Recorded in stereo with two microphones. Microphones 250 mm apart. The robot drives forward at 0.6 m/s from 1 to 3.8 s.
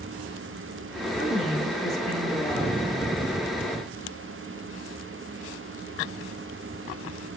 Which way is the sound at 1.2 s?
Centre (ahead or behind).